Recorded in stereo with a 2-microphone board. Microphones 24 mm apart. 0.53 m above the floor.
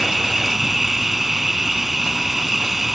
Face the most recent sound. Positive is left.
turn(degrees=-10)  # may be behind; listen again after turning